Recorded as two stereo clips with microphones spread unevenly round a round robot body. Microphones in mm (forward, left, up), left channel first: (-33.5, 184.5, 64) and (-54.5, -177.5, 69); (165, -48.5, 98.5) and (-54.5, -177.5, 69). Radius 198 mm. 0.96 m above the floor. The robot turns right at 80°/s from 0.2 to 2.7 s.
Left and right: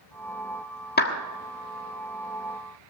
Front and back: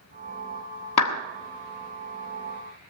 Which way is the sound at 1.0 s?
20° left.